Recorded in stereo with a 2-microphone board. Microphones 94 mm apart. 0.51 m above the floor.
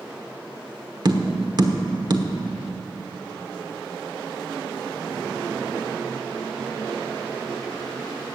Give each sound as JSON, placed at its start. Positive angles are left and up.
{"t": 1.1, "sound": "tapping", "side_deg": -50, "distance_m": 1.1}